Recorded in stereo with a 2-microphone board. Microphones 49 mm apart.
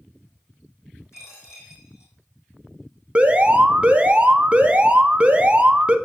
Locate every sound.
1.1 s a dropped coin: 75° left (ahead or behind), 3 m
3.1 s an alarm: 25° right (ahead or behind), 0.8 m